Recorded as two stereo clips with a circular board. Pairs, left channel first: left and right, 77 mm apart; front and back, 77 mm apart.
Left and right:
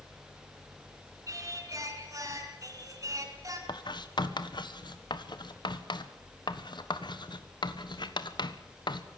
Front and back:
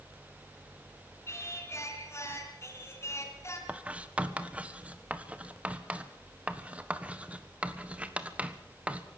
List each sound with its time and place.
1.3 s singing: 50° right, 3.5 m
3.7 s writing: 105° left, 1.3 m